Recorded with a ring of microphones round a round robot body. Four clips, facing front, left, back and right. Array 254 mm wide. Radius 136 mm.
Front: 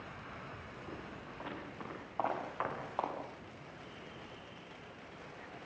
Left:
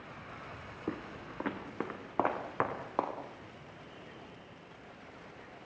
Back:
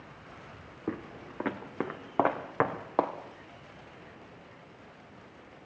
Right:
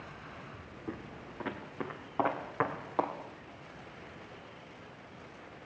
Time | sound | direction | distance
0.9 | footsteps | 155° left | 2 m